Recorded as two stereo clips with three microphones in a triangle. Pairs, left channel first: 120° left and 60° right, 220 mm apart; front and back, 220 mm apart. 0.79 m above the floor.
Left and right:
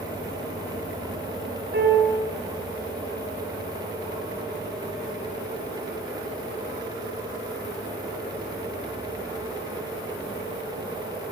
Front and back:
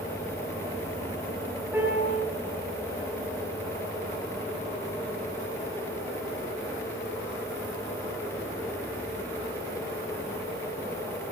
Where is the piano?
100° right, 6.5 m.